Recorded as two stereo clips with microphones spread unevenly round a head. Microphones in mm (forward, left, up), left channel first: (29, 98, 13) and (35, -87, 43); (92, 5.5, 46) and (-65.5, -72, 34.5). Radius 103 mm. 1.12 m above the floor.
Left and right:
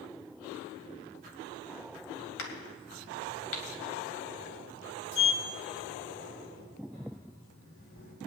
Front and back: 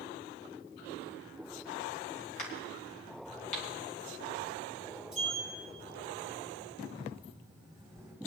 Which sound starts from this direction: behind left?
A sliding door, at 5.1 s.